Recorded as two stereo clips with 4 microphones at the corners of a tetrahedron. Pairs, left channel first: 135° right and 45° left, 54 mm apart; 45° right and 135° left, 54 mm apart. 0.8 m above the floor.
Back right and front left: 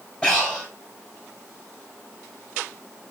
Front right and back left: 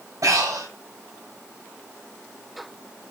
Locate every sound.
0.2 s breathing: 155° left, 3.5 m